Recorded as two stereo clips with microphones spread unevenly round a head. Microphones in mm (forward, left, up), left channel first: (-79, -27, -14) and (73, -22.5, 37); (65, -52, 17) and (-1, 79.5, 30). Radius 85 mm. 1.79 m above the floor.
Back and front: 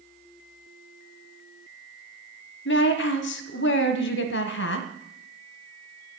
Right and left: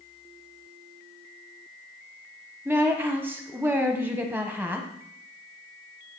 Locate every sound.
2.6 s a woman speaking: 165° right, 1.1 m